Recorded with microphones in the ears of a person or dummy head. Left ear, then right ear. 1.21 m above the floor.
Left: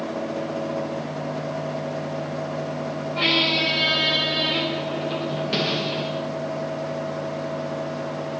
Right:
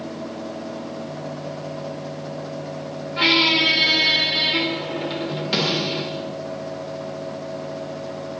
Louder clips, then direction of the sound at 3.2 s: Right 4 dB; 15° right (ahead or behind).